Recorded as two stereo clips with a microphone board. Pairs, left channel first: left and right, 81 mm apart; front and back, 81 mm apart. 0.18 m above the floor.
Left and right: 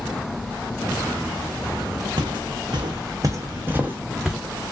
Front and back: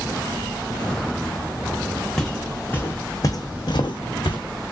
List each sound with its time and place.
2.2 s footsteps: 85° right, 0.9 m; by 4.4 s straight ahead, 0.9 m